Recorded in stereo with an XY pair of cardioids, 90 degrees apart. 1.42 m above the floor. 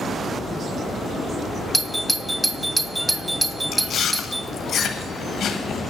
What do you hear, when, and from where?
1.7 s a doorbell: 10° right, 0.7 m
3.7 s chewing: 70° left, 1.2 m